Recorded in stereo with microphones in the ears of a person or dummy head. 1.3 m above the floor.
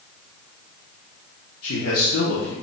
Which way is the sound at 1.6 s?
75° left (ahead or behind).